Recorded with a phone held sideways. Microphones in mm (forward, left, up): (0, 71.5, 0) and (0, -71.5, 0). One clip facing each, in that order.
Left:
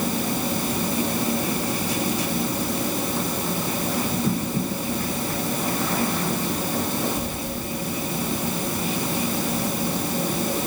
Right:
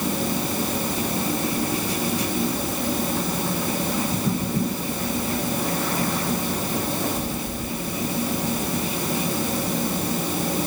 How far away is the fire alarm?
I don't hear a fire alarm.